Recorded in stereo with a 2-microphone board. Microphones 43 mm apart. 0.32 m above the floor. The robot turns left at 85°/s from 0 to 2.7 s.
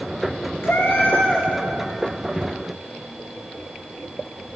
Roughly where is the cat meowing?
Left.